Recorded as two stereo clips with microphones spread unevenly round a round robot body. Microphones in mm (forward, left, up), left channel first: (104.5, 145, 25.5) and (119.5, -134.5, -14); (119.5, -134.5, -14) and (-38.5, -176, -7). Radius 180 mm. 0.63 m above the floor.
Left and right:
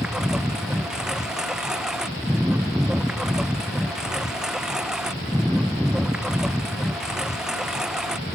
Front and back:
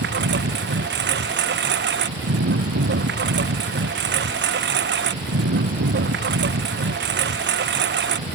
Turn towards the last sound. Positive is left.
turn(degrees=-175)